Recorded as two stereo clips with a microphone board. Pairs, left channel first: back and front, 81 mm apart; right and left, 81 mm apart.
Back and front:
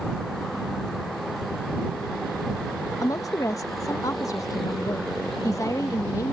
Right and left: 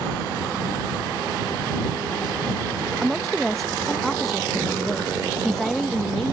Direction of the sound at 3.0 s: 175° right.